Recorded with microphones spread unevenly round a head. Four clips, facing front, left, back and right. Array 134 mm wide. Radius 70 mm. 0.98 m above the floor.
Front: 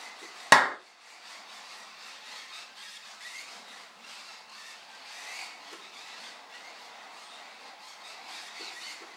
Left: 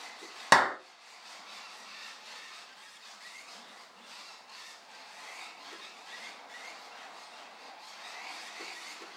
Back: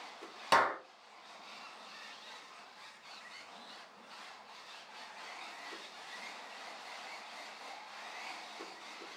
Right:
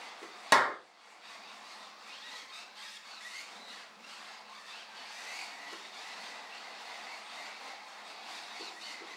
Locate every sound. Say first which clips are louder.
0.5 s a clap: left 2 dB, front 7 dB; 20° left, 0.8 m